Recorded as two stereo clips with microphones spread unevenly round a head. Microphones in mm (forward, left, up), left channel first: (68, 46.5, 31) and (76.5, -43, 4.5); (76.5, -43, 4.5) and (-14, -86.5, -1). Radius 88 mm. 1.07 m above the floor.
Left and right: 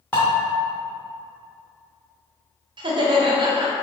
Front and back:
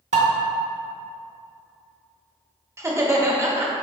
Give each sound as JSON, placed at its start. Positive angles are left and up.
{"t": 0.1, "sound": "dishes clattering", "azimuth_deg": 175, "distance_m": 0.9}
{"t": 2.8, "sound": "laughter", "azimuth_deg": -95, "distance_m": 1.1}